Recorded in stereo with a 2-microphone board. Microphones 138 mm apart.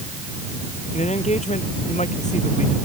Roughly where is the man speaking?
Left.